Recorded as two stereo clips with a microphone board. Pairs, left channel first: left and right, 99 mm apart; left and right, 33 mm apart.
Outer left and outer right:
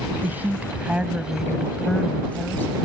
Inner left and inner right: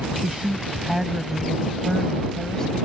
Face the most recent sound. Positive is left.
turn(degrees=25)  # may be behind; listen again after turning